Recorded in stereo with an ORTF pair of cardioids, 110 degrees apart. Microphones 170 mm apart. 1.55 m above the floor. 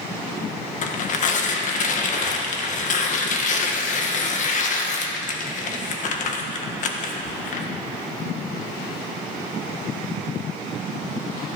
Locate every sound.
0.8 s tearing paper: 50° left, 1.6 m